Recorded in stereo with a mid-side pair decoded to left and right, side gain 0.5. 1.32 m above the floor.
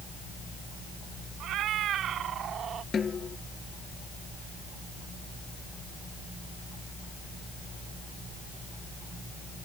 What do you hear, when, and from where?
1.4 s a cat meowing: 70° right; by 2.8 s 50° right
2.9 s a snare drum: 35° left